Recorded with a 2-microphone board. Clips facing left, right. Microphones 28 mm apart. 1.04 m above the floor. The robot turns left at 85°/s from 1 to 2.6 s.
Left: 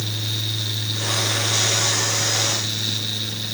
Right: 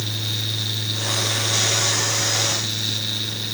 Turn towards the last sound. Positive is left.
No sound to turn to.